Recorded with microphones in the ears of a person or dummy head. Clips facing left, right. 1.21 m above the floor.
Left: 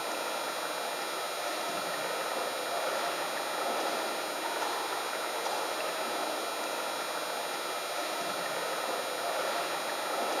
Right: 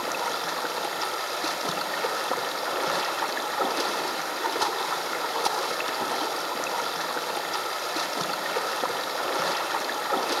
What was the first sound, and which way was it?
Running water, 70° right (ahead or behind).